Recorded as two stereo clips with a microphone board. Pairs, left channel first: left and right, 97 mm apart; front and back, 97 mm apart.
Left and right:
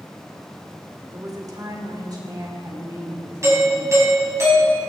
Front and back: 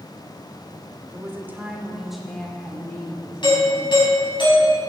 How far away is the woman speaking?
About 1.9 m.